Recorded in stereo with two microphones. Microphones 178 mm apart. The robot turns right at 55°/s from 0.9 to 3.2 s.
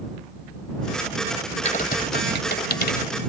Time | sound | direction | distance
1.6 | typing on a keyboard | 40° left (ahead or behind) | ?